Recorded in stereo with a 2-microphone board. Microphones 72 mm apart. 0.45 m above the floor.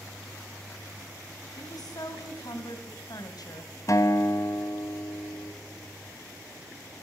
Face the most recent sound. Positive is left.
turn(degrees=50)  # may be behind; listen again after turning